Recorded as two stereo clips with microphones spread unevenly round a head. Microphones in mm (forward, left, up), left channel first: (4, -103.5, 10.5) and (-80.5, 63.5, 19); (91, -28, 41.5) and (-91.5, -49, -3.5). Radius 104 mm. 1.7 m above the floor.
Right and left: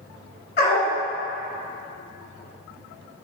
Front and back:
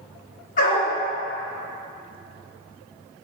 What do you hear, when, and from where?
0.6 s a dog barking: 10° right, 1.9 m